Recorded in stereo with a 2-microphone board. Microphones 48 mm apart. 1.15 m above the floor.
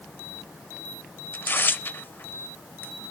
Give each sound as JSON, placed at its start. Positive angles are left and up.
{"t": 1.3, "sound": "tearing paper", "side_deg": 35, "distance_m": 0.6}